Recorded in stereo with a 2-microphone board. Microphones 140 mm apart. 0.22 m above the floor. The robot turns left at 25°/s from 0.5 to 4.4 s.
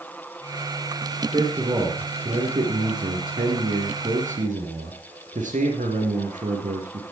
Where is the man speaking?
35° right, 3.5 m; by 7.1 s 110° right, 3.5 m.